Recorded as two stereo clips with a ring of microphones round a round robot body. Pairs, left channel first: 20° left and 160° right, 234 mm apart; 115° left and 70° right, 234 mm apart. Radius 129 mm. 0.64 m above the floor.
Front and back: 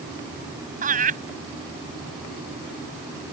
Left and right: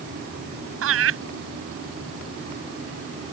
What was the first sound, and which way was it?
Laughter, 100° right.